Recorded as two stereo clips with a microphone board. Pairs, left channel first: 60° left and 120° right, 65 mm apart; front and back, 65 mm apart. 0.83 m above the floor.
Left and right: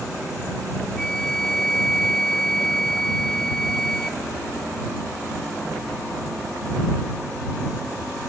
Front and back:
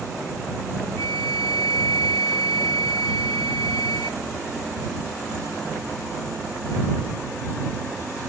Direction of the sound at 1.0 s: 20° right.